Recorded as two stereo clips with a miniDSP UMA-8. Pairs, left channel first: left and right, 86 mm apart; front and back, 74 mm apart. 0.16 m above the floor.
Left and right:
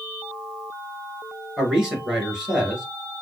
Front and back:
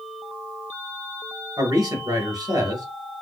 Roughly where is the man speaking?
Behind.